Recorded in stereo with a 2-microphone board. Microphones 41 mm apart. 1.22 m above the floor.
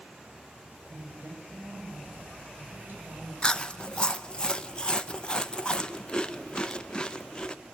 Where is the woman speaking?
65° right (ahead or behind), 8 m; by 4.4 s 50° right (ahead or behind), 8 m.